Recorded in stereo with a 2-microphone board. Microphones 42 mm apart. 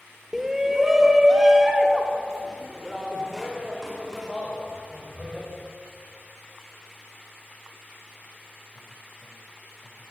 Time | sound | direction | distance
0.3 | a shout | 10° right (ahead or behind) | 0.9 m